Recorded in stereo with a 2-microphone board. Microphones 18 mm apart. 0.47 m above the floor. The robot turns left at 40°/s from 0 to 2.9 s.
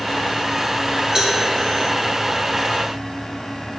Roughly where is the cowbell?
Right.